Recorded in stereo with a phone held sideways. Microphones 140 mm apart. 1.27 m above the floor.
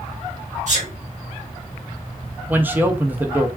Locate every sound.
0.7 s a sneeze: 60° right (ahead or behind), 1.5 m
2.5 s a man speaking: 15° right (ahead or behind), 0.6 m